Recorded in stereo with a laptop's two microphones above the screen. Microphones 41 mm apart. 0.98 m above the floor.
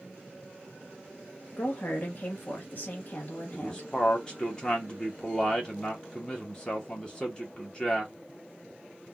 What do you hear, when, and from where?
1.6 s a woman speaking: 40° left (ahead or behind), 0.9 m
3.5 s a man speaking: 15° left (ahead or behind), 0.8 m